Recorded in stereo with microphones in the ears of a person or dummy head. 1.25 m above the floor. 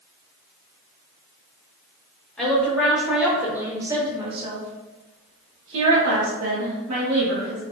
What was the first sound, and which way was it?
A woman speaking, 5° left (ahead or behind).